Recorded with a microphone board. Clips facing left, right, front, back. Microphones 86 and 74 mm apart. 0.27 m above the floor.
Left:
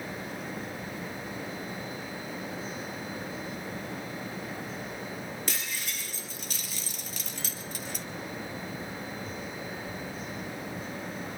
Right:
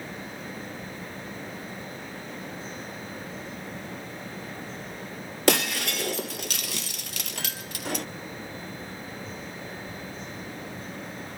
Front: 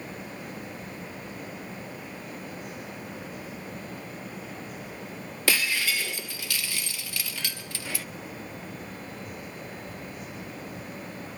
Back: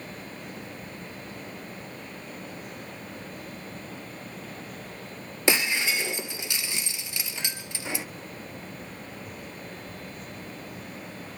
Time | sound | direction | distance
5.5 | breaking glass | 110° right | 0.8 m